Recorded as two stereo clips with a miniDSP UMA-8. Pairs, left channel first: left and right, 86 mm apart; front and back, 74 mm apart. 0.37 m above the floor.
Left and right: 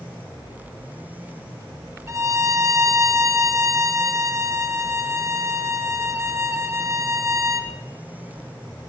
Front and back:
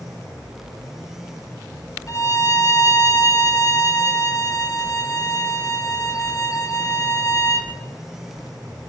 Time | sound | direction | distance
2.1 | a violin | 40° right | 2 m